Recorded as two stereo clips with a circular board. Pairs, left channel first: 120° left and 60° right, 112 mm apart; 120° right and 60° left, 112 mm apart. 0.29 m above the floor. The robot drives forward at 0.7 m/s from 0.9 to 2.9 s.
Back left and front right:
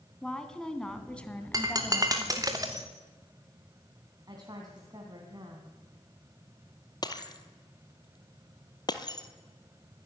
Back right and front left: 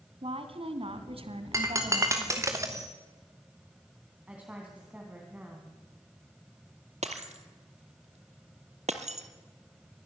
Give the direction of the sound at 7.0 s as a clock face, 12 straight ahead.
10 o'clock.